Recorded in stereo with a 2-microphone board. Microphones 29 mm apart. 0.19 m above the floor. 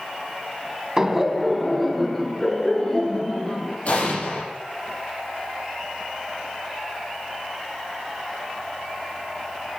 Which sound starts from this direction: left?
An explosion, at 3.9 s.